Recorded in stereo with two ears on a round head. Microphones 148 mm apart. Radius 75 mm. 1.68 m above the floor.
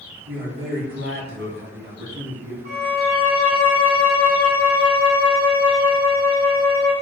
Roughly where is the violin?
Right.